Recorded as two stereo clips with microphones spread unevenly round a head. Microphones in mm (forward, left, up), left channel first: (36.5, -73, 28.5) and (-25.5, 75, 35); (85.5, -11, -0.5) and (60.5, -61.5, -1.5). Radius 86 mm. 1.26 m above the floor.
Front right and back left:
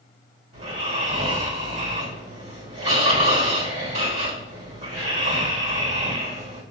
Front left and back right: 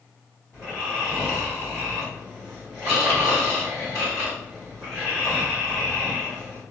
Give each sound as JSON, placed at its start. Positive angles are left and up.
{"t": 0.5, "sound": "snoring", "azimuth_deg": 135, "distance_m": 1.4}